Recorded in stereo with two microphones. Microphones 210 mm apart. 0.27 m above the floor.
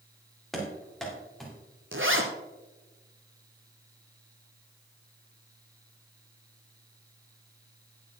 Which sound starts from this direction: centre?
Running footsteps, at 0.5 s.